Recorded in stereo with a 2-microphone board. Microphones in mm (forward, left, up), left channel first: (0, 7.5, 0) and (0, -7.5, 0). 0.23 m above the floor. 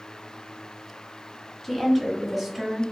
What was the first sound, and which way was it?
A woman speaking, 15° left (ahead or behind).